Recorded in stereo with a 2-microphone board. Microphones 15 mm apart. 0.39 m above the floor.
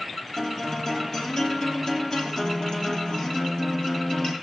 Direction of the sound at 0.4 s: 45° left (ahead or behind).